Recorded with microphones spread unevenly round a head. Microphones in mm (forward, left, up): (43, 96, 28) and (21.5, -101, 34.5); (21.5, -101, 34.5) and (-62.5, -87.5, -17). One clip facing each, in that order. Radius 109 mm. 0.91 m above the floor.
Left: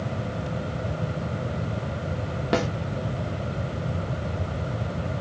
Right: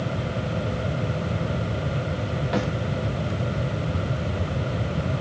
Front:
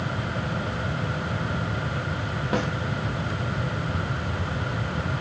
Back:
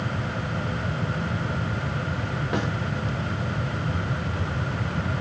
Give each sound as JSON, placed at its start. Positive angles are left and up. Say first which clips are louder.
{"t": 2.5, "sound": "a snare drum", "louder": "left 2 dB, front 2 dB", "azimuth_deg": 50, "distance_m": 1.1}